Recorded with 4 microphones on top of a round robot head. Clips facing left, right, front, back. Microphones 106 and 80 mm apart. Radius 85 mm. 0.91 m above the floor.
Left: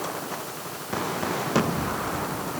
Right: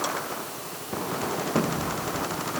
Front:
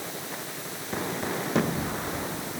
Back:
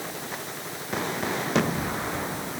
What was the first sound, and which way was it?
Only background noise.